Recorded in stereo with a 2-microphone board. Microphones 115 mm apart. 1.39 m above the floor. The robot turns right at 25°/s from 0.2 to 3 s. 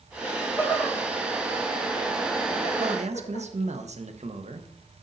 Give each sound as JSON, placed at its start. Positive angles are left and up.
{"t": 0.2, "sound": "laughter", "side_deg": 15, "distance_m": 4.0}
{"t": 2.8, "sound": "a man speaking", "side_deg": -70, "distance_m": 1.1}